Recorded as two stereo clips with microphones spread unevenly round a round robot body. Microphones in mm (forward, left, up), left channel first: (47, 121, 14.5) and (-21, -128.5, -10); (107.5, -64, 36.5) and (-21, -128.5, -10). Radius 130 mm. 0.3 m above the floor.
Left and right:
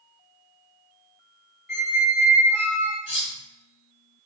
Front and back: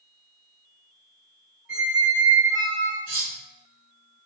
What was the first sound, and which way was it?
A squeak, 165° left.